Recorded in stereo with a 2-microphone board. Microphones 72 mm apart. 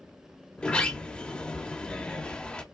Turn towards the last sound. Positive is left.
turn(degrees=15)  # may be behind; listen again after turning